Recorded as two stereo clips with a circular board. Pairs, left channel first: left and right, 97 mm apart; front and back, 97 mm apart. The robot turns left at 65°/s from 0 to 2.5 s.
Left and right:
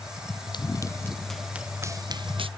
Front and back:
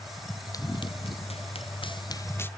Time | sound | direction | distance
0.5 | running footsteps | 50° left | ?